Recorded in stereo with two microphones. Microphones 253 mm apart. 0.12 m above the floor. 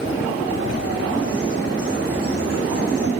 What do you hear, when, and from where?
0.3 s a bird: 70° left (ahead or behind), 9.5 m